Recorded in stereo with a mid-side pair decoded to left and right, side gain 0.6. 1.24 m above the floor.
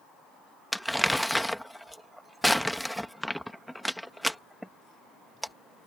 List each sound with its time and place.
0.7 s crumpling: straight ahead